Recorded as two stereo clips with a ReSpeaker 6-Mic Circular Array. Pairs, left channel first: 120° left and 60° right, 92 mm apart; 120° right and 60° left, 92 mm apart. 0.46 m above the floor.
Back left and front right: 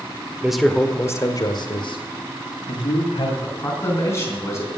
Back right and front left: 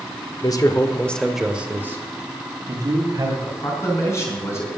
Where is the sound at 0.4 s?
140° right, 1.1 m; by 3.3 s 105° left, 2.5 m.